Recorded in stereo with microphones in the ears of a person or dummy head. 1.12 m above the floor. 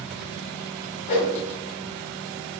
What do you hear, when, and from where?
1.1 s a whoosh: 40° left (ahead or behind), 0.7 m